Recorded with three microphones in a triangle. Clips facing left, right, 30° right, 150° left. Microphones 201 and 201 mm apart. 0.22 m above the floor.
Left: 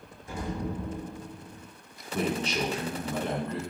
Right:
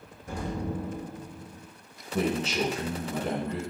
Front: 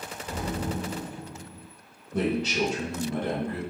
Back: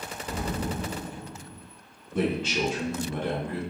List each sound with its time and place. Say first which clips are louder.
0.3 s an explosion: right 1 dB, even; 120° right, 1.4 m
2.1 s a man speaking: right 2 dB, front 1 dB; 5° right, 1.7 m